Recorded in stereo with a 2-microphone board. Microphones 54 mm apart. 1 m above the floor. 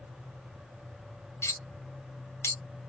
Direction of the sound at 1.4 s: 55° left (ahead or behind).